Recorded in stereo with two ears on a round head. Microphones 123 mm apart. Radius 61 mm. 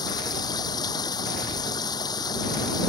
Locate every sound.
0.0 s running water: 30° left (ahead or behind)